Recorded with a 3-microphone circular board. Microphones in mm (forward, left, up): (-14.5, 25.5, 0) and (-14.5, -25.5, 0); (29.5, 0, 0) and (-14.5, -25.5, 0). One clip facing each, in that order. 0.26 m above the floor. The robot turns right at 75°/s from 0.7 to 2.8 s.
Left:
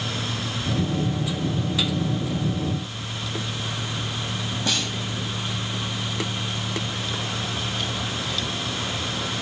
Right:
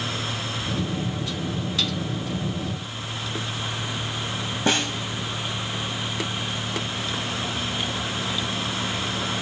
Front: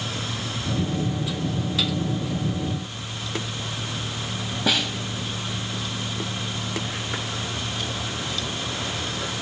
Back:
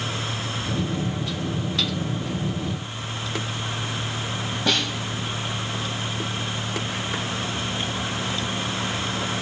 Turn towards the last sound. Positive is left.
turn(degrees=-50)